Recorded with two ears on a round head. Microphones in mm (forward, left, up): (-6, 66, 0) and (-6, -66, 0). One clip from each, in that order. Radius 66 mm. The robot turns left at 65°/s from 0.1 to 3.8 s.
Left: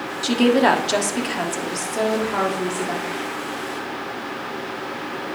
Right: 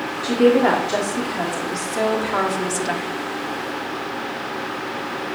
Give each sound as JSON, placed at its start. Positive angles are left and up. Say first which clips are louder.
{"t": 0.2, "sound": "a woman speaking", "louder": "right 1 dB", "azimuth_deg": 115, "distance_m": 1.7}